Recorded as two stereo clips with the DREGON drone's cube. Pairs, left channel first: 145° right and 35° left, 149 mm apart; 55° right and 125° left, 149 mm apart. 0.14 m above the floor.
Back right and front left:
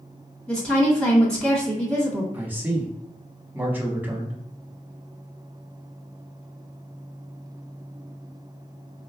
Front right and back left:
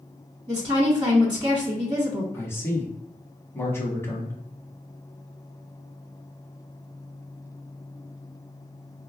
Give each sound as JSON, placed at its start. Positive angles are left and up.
{"t": 0.5, "sound": "a woman speaking", "azimuth_deg": 140, "distance_m": 1.7}
{"t": 2.3, "sound": "a man speaking", "azimuth_deg": -20, "distance_m": 1.0}